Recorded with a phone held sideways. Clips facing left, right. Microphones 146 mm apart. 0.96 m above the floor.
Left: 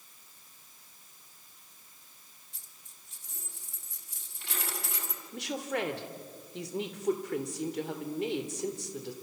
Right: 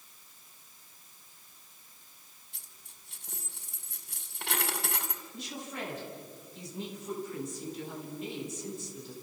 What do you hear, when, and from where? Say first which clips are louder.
2.5 s a dropped coin: right 1 dB; 70° right (ahead or behind), 2.5 m
5.3 s a woman speaking: left 9 dB; 80° left, 3 m